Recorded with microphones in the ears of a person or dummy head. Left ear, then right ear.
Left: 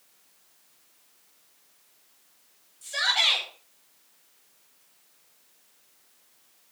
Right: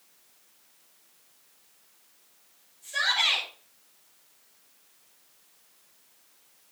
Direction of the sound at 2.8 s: 40° left (ahead or behind).